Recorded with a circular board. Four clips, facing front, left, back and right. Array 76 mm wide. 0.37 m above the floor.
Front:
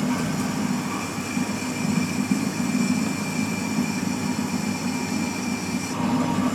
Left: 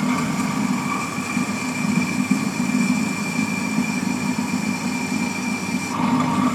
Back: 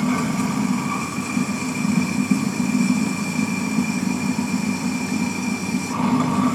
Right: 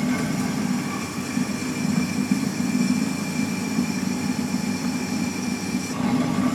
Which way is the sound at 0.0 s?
115° left.